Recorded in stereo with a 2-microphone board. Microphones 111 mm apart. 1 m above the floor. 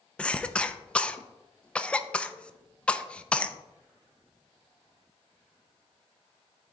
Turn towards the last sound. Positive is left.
turn(degrees=10)  # may be behind; listen again after turning